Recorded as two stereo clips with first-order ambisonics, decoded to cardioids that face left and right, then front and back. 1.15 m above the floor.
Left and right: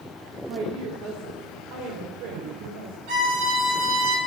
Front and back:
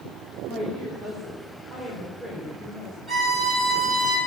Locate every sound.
0.5 s a woman speaking: 60° right, 2.5 m; by 2.9 s 85° right, 5.5 m
3.1 s a violin: 85° right, 6 m